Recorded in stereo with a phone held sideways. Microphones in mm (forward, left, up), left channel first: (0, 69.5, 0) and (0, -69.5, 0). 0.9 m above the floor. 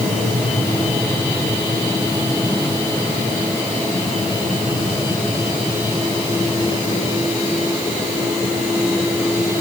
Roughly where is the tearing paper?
I don't hear tearing paper.